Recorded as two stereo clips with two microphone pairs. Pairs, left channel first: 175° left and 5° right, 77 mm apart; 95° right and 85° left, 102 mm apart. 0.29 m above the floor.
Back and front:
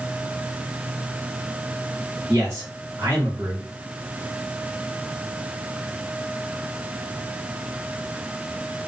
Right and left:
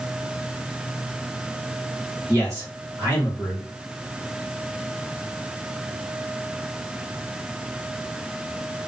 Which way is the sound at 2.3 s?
35° left.